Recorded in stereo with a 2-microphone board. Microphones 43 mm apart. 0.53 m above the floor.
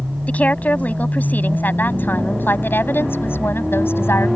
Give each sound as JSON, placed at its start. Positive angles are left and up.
{"t": 0.3, "sound": "a woman speaking", "side_deg": 35}